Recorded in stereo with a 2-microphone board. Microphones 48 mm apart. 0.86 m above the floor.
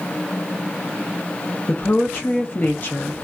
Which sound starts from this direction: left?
A woman speaking, at 1.7 s.